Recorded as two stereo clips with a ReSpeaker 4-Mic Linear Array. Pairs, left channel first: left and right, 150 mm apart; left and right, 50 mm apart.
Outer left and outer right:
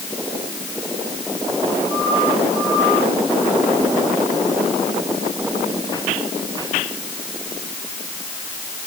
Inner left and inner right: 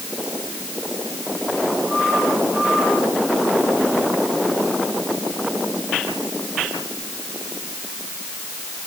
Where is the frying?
I don't hear frying.